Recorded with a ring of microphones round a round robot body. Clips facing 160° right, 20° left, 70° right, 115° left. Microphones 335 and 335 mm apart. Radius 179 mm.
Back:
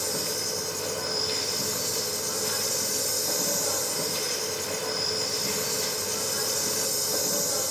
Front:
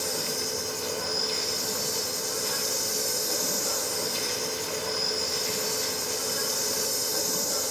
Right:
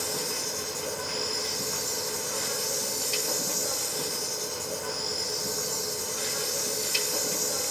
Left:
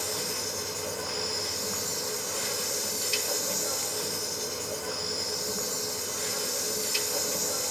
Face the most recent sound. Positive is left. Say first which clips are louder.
# even, right 1 dB
turn(degrees=-120)